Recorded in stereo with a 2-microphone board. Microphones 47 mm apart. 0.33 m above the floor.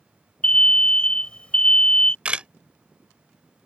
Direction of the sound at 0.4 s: 25° left (ahead or behind).